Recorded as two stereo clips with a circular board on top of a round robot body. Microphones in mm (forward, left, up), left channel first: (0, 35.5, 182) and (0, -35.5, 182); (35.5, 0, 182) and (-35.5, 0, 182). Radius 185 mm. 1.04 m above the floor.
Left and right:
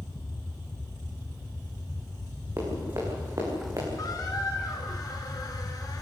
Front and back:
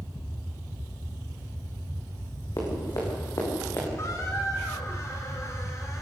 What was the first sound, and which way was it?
Running footsteps, 40° right.